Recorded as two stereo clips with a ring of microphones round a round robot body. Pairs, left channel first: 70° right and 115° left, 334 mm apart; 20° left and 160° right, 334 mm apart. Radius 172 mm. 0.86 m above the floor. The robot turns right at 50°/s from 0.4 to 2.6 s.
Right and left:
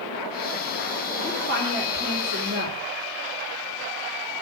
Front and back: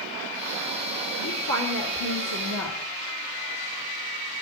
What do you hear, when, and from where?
1.2 s a woman speaking: 10° right, 2 m; by 2.8 s 60° left, 2 m